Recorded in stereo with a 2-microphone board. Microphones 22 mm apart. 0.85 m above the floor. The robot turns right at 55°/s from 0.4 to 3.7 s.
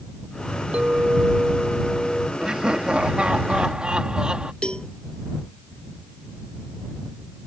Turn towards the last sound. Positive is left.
turn(degrees=45)  # may be behind; listen again after turning